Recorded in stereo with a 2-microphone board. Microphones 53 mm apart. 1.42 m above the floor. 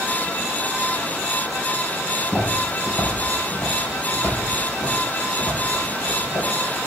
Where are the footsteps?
30° left (ahead or behind), 3 m; by 6.5 s 55° left (ahead or behind), 4 m.